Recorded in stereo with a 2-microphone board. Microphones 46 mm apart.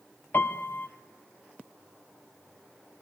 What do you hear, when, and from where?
0.3 s a piano: 50° left (ahead or behind), 1.6 m